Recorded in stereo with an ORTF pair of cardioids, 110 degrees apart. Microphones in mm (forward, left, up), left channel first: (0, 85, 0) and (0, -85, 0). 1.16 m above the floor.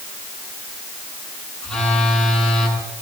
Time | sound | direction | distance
1.6 | a phone buzzing | 5° left | 8.5 m